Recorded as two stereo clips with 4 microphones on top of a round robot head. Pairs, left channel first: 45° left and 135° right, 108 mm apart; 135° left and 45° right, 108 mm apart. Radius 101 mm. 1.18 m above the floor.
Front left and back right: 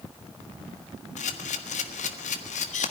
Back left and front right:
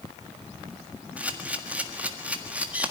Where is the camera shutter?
35° left, 1.6 m.